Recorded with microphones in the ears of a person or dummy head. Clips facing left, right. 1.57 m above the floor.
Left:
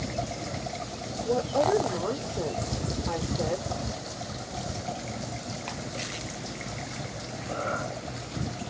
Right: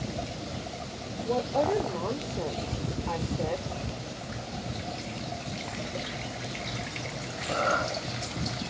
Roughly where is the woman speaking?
Centre.